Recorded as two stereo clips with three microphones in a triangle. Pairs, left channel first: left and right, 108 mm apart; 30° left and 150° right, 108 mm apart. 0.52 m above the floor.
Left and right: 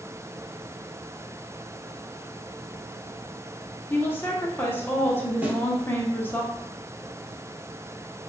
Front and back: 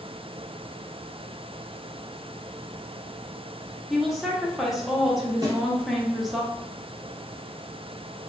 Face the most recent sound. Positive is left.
turn(degrees=-160)